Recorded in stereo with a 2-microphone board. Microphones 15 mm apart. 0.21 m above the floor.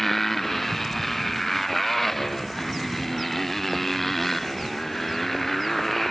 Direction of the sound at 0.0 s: 20° left (ahead or behind).